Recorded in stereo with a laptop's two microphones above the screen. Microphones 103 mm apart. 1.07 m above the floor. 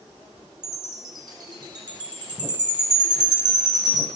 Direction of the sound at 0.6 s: 40° right (ahead or behind).